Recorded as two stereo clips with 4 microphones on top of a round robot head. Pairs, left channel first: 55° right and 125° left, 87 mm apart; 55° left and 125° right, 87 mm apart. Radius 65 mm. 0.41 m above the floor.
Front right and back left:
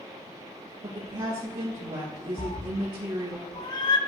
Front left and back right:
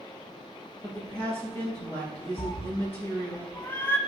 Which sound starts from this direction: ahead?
A cat meowing, at 2.4 s.